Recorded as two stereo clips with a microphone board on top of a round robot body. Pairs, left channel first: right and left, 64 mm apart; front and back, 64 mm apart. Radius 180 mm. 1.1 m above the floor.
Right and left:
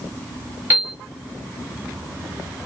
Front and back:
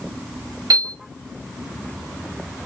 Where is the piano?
150° left, 1.2 m.